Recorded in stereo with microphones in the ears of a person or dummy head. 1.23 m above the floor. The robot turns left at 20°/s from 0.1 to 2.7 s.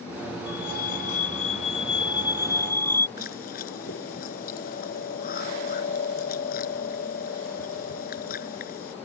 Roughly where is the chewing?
Left.